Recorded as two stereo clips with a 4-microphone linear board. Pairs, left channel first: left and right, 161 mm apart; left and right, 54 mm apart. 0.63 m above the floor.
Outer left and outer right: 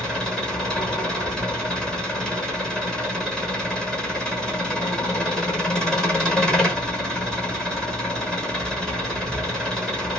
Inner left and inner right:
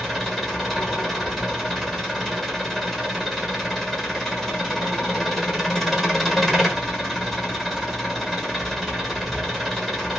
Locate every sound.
0.0 s an engine running: 5° left (ahead or behind), 1.3 m